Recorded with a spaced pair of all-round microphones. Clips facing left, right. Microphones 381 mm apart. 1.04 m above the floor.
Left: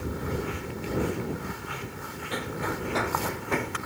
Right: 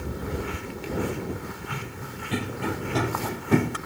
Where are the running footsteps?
40° right (ahead or behind); by 3.8 s 55° right (ahead or behind).